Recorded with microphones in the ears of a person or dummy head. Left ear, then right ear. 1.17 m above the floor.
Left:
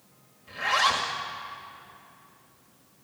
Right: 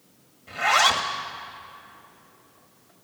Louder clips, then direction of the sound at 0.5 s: Right 4 dB; 25° right (ahead or behind).